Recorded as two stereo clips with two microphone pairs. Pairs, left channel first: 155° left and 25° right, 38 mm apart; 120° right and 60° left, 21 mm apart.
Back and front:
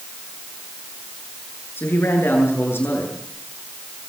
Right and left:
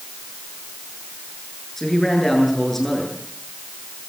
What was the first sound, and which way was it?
A man speaking, 160° left.